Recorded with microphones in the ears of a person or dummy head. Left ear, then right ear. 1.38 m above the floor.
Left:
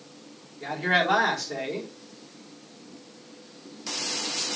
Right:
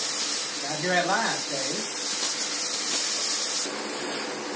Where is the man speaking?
10° left (ahead or behind), 4 m.